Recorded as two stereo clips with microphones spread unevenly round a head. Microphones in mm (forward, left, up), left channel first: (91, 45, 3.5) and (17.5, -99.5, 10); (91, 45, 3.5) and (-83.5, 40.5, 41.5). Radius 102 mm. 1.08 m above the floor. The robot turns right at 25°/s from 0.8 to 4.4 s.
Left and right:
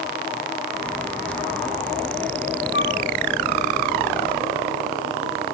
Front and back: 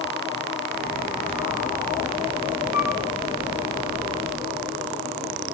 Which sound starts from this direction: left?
A flute, at 2.7 s.